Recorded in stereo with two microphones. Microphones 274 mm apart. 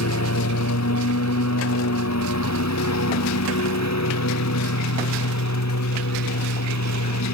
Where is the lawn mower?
70° left (ahead or behind); by 7.3 s 80° left.